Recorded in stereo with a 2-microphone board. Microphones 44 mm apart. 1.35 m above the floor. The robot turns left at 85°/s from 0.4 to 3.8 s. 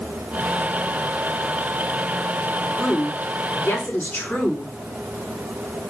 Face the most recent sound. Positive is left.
turn(degrees=45)